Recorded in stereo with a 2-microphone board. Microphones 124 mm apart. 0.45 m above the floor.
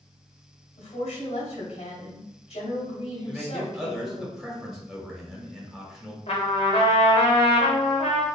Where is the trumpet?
60° left (ahead or behind), 0.9 m.